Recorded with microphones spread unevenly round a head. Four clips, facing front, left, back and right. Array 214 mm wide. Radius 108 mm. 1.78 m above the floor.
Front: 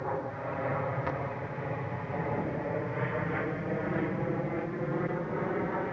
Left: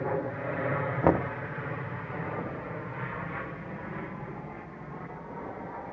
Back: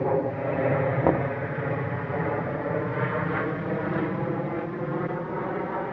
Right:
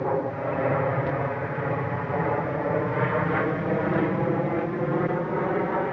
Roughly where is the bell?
I don't hear a bell.